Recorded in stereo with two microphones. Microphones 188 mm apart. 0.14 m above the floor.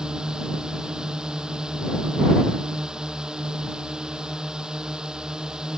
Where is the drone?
5° right (ahead or behind).